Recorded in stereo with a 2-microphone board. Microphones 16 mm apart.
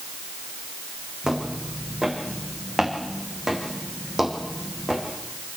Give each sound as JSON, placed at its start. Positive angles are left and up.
{"t": 1.2, "sound": "footsteps", "side_deg": -35, "distance_m": 4.0}